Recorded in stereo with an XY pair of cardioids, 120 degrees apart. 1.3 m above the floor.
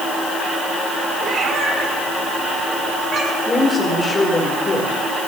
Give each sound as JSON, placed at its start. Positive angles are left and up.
{"t": 1.2, "sound": "a cat meowing", "azimuth_deg": -45, "distance_m": 3.5}
{"t": 3.5, "sound": "a woman speaking", "azimuth_deg": 30, "distance_m": 5.5}